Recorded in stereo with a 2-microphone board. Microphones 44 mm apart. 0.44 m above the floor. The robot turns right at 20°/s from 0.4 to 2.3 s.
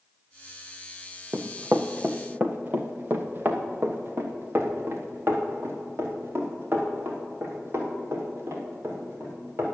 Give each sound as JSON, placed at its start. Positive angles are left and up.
{"t": 1.3, "sound": "running footsteps", "side_deg": -35, "distance_m": 1.1}